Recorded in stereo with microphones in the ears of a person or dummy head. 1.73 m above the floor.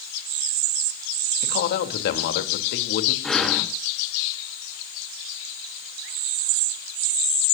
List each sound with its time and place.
1.4 s a man speaking: 60° left (ahead or behind), 3.5 m
3.2 s breathing: centre (ahead or behind), 2.5 m